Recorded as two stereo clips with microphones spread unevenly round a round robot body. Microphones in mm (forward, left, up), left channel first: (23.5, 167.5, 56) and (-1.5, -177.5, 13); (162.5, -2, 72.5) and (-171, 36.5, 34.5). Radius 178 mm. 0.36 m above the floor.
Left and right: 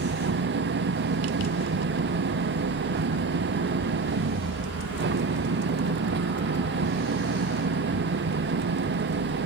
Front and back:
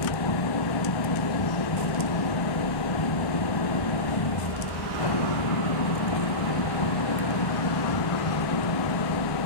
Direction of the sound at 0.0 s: 35° right.